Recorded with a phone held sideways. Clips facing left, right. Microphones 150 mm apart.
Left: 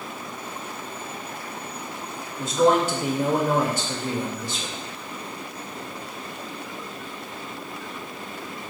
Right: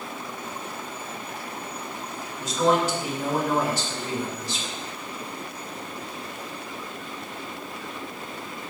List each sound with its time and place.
2.4 s a man speaking: 55° left (ahead or behind), 1.9 m